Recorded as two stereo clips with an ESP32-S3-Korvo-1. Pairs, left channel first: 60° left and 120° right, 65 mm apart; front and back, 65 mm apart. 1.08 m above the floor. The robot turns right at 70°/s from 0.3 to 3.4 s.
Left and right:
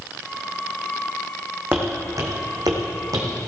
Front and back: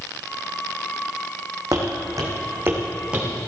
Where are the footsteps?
175° right, 2.5 m; by 3.5 s 95° right, 3 m.